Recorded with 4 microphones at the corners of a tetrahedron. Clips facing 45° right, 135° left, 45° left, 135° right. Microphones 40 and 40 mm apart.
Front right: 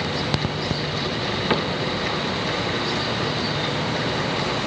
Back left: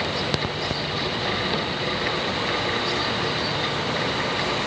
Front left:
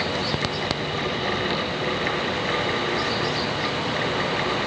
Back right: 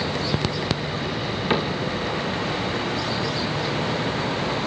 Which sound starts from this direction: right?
A cupboard door, at 1.5 s.